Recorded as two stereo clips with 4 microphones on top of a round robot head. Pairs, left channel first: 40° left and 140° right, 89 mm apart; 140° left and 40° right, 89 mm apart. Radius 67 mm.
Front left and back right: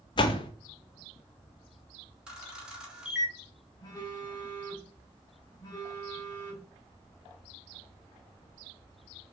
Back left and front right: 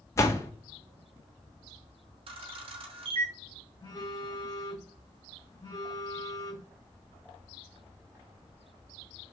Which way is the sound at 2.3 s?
60° right.